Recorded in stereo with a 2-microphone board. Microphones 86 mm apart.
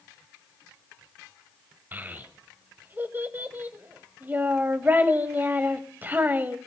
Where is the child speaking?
25° right (ahead or behind), 1.4 m.